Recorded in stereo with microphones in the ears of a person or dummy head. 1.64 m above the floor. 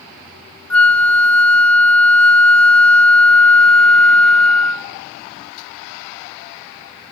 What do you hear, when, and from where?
0.7 s a flute: 5° left (ahead or behind), 0.8 m